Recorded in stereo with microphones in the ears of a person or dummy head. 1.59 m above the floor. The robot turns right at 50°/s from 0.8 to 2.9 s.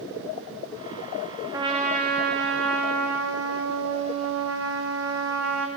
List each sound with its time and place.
1.5 s a trumpet: 155° right, 2.5 m; by 5.7 s 90° right, 2.5 m